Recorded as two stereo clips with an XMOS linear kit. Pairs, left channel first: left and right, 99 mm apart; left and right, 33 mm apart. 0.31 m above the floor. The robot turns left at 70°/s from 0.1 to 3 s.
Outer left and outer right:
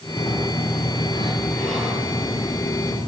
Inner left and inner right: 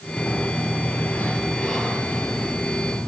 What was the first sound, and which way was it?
A sliding door, 110° left.